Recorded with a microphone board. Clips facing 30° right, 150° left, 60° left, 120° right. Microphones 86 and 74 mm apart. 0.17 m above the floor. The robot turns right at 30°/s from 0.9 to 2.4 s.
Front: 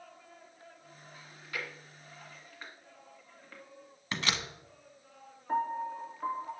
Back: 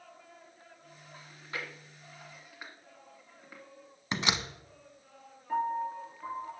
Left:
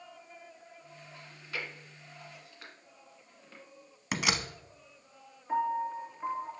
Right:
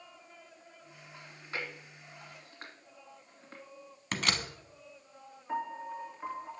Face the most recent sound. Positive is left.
turn(degrees=-50)